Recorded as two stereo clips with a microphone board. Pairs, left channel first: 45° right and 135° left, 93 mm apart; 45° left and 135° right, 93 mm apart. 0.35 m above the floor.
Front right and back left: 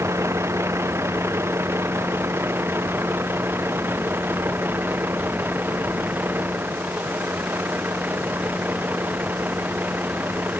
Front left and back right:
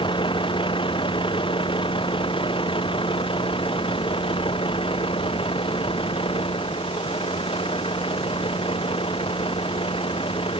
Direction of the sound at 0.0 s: 75° left.